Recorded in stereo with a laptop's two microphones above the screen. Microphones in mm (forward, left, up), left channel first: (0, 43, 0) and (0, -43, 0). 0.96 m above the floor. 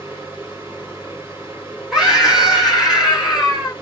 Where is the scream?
5° right (ahead or behind), 1.1 m.